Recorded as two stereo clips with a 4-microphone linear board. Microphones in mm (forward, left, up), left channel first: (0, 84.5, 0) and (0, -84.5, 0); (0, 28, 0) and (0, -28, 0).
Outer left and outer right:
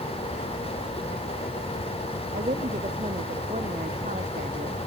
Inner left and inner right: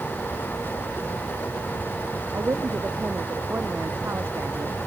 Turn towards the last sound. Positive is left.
turn(degrees=-50)  # may be behind; listen again after turning